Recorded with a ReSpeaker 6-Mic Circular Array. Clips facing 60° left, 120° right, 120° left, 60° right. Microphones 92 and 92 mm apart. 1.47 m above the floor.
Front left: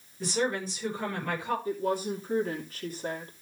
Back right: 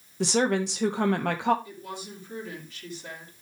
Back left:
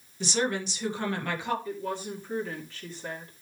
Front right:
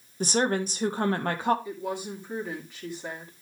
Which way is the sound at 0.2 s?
110° right.